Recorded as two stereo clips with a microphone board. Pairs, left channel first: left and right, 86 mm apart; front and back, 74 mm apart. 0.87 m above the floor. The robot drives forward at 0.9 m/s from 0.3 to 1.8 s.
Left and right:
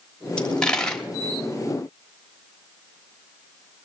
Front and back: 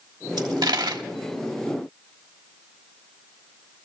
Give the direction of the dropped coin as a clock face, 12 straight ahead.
6 o'clock.